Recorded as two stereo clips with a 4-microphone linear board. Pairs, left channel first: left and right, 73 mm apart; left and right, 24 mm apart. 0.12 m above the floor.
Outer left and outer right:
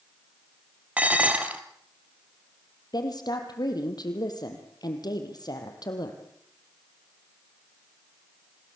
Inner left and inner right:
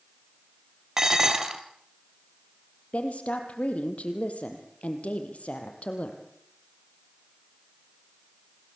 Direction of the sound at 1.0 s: 20° right (ahead or behind).